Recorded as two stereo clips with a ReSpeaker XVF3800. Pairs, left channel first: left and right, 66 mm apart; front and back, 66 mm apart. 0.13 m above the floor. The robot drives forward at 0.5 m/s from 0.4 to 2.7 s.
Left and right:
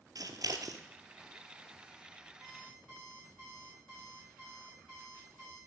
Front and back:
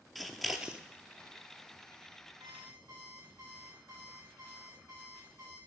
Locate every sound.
0.1 s scissors: 90° right, 0.6 m; by 0.8 s 110° right, 0.7 m
2.4 s an alarm clock: 175° left, 4.5 m